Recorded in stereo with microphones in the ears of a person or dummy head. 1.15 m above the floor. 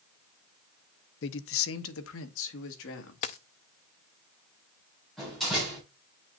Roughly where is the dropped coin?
Left.